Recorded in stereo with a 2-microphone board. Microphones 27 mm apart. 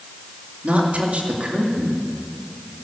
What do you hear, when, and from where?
0.6 s a woman speaking: 50° right (ahead or behind), 2.5 m